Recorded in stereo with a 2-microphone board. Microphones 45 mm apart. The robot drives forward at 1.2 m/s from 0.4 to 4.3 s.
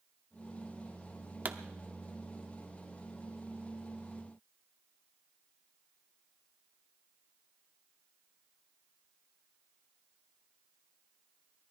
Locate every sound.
1.4 s a pop: 45° right (ahead or behind), 0.9 m